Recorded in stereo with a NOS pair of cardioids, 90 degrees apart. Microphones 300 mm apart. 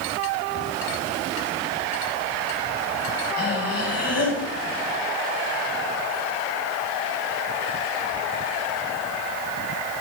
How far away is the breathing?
About 7.5 m.